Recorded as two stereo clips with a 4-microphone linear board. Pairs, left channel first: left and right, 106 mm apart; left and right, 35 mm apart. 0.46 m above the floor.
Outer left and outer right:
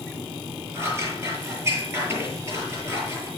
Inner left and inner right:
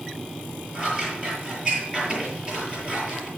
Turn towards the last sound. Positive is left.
turn(degrees=-25)  # may be behind; listen again after turning